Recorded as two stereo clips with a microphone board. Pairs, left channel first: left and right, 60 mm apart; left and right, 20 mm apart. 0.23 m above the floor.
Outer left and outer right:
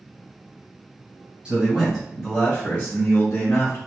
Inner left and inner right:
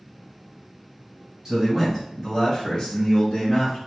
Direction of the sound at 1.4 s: 15° right (ahead or behind).